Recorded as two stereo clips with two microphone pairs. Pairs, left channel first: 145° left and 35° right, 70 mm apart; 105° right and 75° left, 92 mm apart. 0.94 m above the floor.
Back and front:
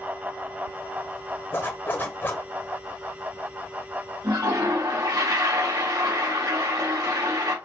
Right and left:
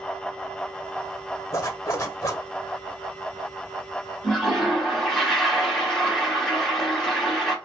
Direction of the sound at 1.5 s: 160° right.